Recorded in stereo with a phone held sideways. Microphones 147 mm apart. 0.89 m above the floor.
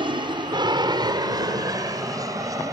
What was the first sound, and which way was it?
An aircraft, 35° right (ahead or behind).